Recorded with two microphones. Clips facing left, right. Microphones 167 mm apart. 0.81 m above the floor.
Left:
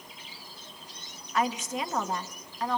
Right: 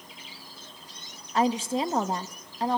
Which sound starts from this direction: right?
A woman speaking, at 1.3 s.